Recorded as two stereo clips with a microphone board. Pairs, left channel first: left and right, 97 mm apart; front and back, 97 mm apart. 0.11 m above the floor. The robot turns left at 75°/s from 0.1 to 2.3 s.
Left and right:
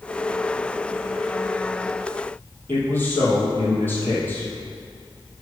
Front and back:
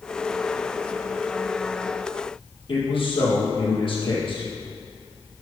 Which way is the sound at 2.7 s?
20° left.